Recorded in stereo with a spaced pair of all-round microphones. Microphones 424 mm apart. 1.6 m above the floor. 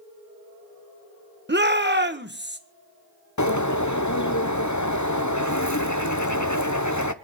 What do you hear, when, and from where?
1.5 s a shout: 25° right (ahead or behind), 1.4 m
3.4 s a bird: 40° left (ahead or behind), 0.8 m